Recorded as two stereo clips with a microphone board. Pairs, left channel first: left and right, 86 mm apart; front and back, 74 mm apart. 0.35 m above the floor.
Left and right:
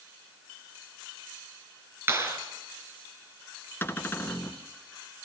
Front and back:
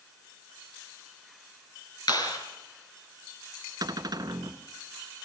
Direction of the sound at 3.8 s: 155° left.